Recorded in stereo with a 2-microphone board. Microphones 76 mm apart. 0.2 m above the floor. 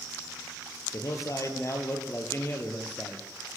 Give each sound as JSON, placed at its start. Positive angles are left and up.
{"t": 0.9, "sound": "a man speaking", "side_deg": 50, "distance_m": 5.0}